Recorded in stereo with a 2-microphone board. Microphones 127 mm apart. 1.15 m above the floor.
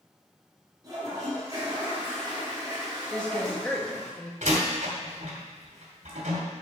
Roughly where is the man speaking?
Centre.